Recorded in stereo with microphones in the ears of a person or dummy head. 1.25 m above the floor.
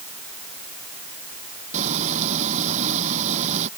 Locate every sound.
1.7 s frying: 40° right (ahead or behind)